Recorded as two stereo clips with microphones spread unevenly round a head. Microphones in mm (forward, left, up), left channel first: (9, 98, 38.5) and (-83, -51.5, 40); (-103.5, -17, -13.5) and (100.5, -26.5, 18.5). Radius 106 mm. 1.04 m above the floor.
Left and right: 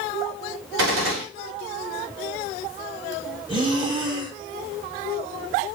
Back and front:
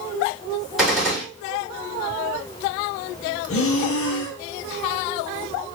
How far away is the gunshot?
About 3 m.